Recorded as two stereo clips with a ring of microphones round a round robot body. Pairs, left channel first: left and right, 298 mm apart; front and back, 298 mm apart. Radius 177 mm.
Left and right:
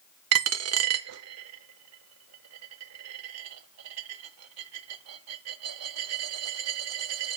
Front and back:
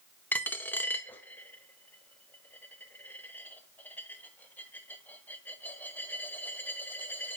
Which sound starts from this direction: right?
A dropped coin, at 0.3 s.